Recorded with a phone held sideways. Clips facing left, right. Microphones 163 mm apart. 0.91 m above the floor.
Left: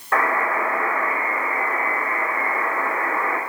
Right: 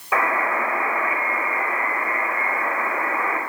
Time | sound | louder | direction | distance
0.1 | a buzzer | left 1 dB | 5° right (ahead or behind) | 5 m